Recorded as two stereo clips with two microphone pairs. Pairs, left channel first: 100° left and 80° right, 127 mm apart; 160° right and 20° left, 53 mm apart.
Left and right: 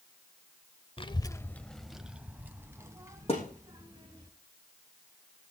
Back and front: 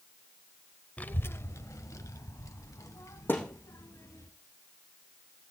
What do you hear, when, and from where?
1.0 s a child speaking: 135° left, 0.7 m; by 4.3 s 145° right, 2.5 m
3.3 s a thud: 140° left, 6.5 m